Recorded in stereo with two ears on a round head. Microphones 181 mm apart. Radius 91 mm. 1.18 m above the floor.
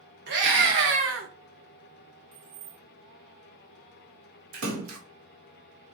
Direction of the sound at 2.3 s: 85° right.